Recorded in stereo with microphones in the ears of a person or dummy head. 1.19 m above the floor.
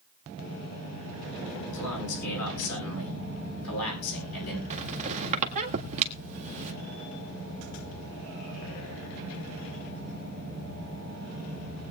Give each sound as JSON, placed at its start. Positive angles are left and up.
{"t": 1.7, "sound": "a man speaking", "side_deg": 80, "distance_m": 10.0}
{"t": 4.7, "sound": "a squeak", "side_deg": -35, "distance_m": 1.8}